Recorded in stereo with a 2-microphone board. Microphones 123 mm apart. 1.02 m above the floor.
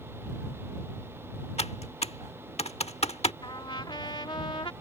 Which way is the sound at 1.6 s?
70° left (ahead or behind).